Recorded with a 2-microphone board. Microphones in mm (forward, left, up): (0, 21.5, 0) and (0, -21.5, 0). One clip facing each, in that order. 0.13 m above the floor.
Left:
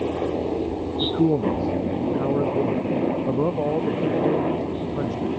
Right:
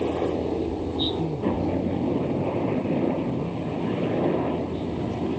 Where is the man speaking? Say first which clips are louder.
Left 8 dB; 75° left (ahead or behind).